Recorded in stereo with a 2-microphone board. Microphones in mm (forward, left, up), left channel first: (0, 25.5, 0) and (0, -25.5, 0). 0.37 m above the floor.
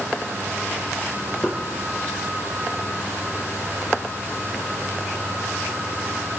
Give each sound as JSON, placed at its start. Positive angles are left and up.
{"t": 1.4, "sound": "knocking", "side_deg": 5, "distance_m": 7.5}